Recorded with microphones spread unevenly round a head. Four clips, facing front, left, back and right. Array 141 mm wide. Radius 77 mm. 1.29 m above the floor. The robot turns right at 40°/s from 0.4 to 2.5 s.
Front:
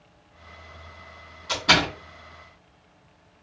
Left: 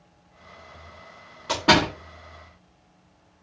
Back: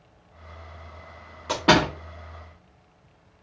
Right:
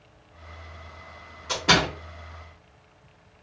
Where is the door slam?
145° left, 1.2 m; by 1.9 s 160° left, 1.2 m.